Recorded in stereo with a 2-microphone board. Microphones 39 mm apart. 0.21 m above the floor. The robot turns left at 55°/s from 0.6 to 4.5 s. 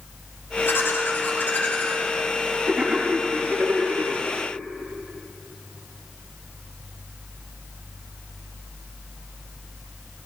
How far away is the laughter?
About 4.5 m.